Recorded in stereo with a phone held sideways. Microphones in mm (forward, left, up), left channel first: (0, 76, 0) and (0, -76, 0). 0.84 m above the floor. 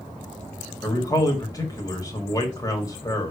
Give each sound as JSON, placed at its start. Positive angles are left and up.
{"t": 0.8, "sound": "a man speaking", "side_deg": 25, "distance_m": 2.0}